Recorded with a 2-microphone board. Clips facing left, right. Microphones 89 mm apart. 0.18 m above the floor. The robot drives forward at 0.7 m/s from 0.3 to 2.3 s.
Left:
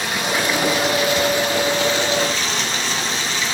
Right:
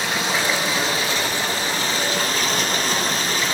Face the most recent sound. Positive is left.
turn(degrees=-45)  # may be behind; listen again after turning